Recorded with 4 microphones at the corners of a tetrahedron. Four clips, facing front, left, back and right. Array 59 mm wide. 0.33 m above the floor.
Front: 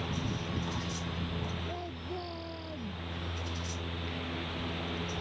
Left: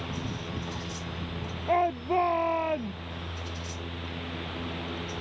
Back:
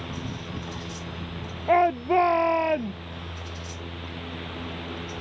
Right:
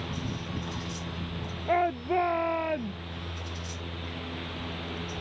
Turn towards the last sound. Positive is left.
turn(degrees=180)